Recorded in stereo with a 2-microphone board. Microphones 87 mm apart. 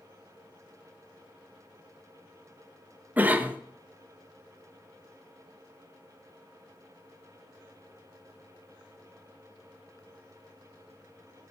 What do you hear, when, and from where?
3.2 s a cough: 20° right (ahead or behind), 0.6 m